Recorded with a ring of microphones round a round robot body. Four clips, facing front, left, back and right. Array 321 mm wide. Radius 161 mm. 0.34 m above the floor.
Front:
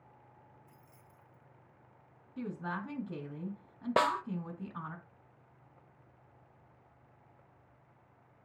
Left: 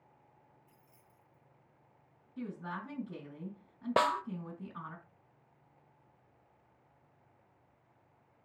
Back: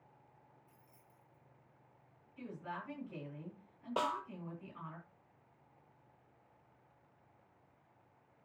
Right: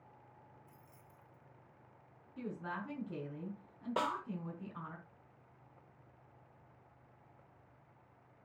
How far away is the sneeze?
No sneeze in this recording.